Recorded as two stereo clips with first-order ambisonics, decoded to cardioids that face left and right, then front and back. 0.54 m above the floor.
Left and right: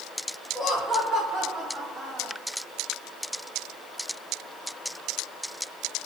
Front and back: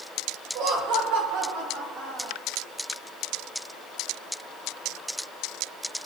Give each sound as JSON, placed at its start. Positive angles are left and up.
{"t": 0.6, "sound": "laughter", "azimuth_deg": 180, "distance_m": 1.6}